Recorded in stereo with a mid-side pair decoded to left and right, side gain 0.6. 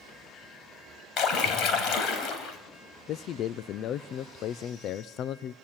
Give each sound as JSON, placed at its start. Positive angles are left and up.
{"t": 1.2, "sound": "a splash", "azimuth_deg": 60, "distance_m": 3.5}
{"t": 3.1, "sound": "a man speaking", "azimuth_deg": 55, "distance_m": 0.6}